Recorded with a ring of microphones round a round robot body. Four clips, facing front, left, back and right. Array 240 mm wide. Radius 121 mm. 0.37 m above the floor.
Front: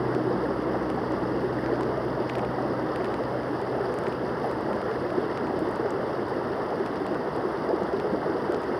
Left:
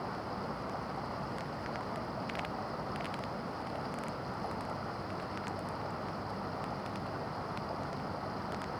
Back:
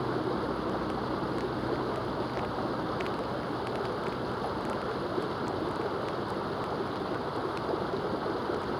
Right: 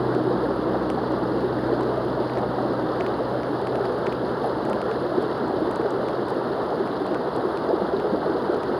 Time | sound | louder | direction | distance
0.0 | running water | right 17 dB, front 5 dB | 70° right | ?